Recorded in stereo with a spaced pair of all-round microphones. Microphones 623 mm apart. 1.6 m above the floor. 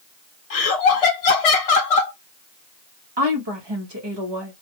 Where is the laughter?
65° left (ahead or behind), 0.5 m.